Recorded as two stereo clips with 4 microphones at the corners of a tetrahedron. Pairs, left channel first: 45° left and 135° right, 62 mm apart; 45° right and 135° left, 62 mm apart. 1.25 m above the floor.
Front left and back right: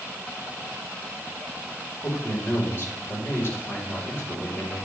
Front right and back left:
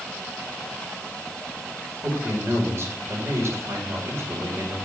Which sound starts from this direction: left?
A man speaking, at 2.0 s.